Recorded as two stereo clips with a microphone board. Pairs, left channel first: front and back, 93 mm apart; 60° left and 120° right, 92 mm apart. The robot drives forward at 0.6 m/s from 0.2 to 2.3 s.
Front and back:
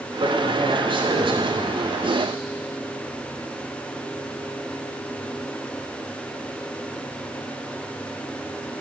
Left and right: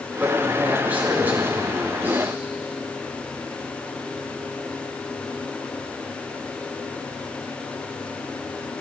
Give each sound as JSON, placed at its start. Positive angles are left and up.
{"t": 0.2, "sound": "a man speaking", "azimuth_deg": 165, "distance_m": 3.0}